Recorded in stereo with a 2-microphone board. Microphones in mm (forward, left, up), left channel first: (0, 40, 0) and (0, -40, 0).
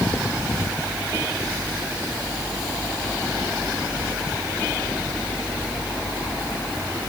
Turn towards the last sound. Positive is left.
No sound to turn to.